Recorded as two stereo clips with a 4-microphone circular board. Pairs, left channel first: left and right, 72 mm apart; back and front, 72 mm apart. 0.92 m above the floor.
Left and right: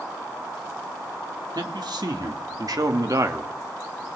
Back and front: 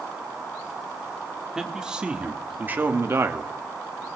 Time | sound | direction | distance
1.6 | a man speaking | 80° right | 2 m